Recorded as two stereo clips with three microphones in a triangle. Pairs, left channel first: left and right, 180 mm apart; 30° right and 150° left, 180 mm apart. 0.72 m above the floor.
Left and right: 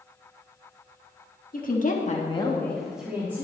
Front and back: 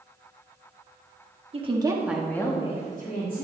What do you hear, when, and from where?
1.5 s a woman speaking: 105° left, 1.4 m; by 3.4 s 20° right, 1.8 m